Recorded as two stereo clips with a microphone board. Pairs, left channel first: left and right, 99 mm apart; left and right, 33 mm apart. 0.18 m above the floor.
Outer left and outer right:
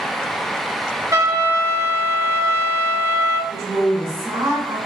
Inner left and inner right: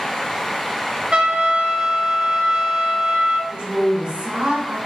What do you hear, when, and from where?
1.1 s a trumpet: 30° right (ahead or behind), 0.6 m
3.5 s a woman speaking: 35° right (ahead or behind), 1.7 m